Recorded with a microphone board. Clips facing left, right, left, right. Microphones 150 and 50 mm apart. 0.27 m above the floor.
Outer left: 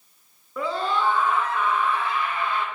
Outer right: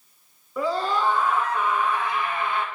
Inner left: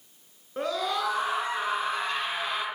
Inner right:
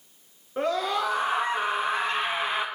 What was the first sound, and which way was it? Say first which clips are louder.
A scream: outer right 1 dB, inner right 3 dB; 5° right (ahead or behind).